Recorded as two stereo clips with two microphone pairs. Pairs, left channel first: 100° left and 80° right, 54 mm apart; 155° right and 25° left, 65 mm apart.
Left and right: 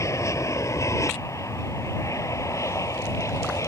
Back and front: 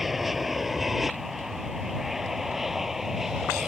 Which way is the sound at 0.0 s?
110° left.